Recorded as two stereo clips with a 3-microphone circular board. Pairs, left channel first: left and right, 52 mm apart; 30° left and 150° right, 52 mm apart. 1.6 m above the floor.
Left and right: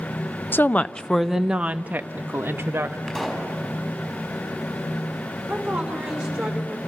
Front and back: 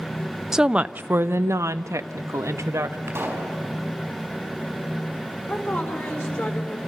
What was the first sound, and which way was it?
A woman speaking, 130° left.